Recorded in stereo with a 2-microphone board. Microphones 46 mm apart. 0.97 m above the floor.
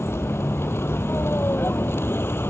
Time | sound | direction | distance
0.0 | a vehicle | 60° left (ahead or behind) | ?